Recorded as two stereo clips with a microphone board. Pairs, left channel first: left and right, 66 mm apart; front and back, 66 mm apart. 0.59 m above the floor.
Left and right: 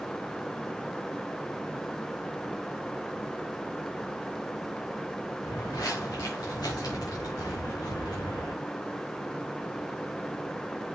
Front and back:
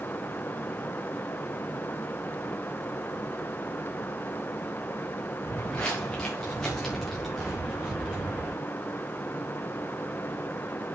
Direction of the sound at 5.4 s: 70° left.